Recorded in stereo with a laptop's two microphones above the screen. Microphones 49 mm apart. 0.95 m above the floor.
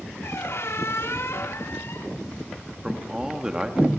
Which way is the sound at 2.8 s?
15° right (ahead or behind).